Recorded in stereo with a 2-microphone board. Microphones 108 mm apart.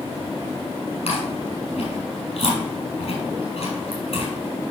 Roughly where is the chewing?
Left.